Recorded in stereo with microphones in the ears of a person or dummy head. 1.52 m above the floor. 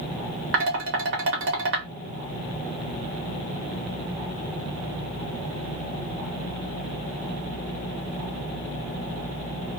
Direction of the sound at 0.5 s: 60° right (ahead or behind).